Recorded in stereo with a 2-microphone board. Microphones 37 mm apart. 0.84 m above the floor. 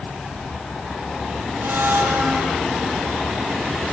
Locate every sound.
1.6 s a blender: 70° right (ahead or behind), 5 m